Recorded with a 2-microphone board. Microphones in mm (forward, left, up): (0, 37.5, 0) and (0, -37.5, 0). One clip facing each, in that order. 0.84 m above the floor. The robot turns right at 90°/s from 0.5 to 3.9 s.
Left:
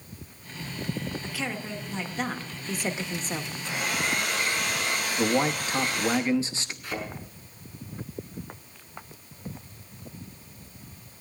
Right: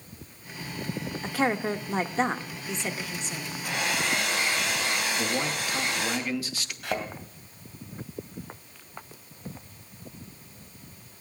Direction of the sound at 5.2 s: 25° left (ahead or behind).